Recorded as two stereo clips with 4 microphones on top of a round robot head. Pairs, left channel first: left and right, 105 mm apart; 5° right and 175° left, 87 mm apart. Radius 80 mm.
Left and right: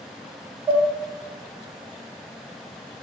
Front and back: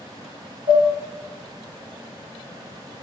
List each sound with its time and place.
0.7 s dishes clattering: 160° right, 1.6 m